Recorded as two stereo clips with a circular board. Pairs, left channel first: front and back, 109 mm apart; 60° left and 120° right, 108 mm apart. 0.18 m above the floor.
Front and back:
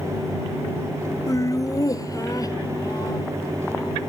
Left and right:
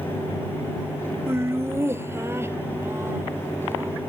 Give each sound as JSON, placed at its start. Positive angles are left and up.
{"t": 1.3, "sound": "laughter", "azimuth_deg": -55}